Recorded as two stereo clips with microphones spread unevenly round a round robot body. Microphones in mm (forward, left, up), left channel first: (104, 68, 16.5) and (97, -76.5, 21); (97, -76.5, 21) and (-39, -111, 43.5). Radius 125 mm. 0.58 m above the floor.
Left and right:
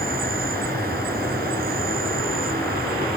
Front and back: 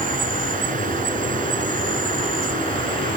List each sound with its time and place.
0.0 s an insect: 145° right